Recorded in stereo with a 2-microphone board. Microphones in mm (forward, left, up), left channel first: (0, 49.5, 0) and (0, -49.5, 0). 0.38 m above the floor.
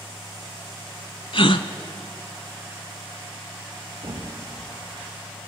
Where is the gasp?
60° left (ahead or behind), 0.8 m.